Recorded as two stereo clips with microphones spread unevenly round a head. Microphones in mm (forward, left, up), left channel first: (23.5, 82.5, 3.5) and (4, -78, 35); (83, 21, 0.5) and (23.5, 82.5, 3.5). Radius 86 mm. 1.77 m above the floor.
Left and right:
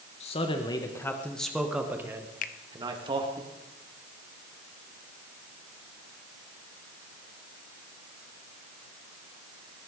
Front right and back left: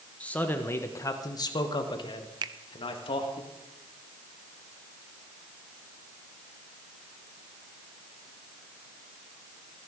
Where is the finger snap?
130° left, 0.7 m.